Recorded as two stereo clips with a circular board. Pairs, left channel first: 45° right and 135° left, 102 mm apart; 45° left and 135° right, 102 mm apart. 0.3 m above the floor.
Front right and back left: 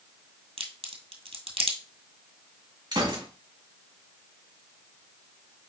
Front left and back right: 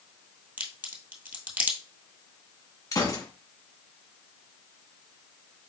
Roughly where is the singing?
I don't hear singing.